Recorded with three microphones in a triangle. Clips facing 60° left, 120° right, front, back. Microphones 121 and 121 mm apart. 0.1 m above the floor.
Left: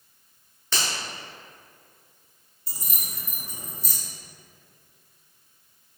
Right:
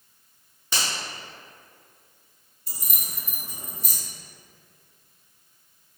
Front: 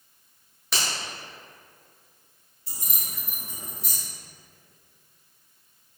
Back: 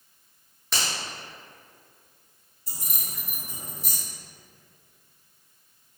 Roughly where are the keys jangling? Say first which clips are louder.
Even, even; behind right.